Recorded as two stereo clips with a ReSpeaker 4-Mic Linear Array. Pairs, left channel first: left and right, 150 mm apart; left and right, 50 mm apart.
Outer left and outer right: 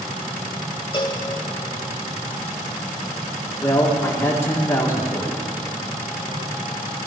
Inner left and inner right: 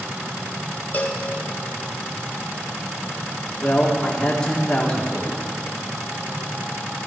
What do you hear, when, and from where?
0.9 s a cowbell: 35° left (ahead or behind), 1.4 m
3.6 s a woman speaking: 15° left (ahead or behind), 2.5 m